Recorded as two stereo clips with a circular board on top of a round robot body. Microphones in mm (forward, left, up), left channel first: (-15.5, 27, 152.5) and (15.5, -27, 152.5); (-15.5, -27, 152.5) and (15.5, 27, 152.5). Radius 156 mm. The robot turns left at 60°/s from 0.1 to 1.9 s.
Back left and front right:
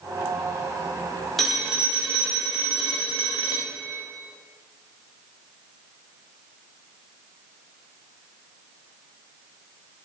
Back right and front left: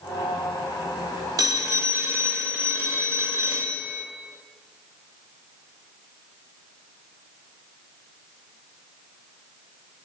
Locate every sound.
1.4 s a phone ringing: 35° left, 1.2 m; by 4.0 s 5° left, 1.2 m